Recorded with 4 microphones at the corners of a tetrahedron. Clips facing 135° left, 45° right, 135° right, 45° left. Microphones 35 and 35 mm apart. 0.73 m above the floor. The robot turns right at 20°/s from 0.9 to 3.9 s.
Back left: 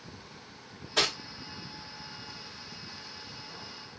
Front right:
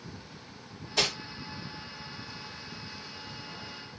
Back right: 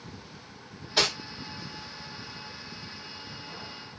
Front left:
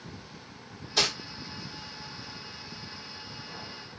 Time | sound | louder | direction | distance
1.0 | cutlery clinking | back left 1 dB, back right 2 dB | 155° left | 1.7 m